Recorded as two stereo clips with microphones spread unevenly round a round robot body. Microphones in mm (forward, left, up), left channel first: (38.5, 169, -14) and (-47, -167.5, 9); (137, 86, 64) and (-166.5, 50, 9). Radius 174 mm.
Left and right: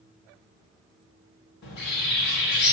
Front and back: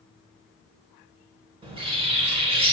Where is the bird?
125° left, 1.4 m.